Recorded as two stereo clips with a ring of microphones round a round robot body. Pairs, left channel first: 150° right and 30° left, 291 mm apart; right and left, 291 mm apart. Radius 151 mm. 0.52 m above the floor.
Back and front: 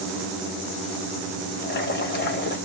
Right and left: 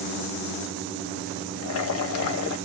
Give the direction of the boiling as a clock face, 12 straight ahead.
3 o'clock.